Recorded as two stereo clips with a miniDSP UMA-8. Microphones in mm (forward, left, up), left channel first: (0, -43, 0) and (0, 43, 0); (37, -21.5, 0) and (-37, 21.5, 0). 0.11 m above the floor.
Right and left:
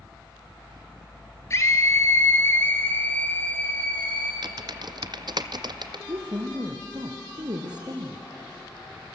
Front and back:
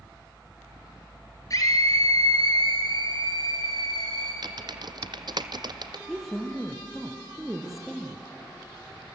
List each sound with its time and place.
1.5 s a scream: 50° right, 2.5 m; by 4.3 s 15° right, 3 m
4.4 s typing on a keyboard: 120° left, 0.8 m
6.1 s a woman speaking: 65° left, 3 m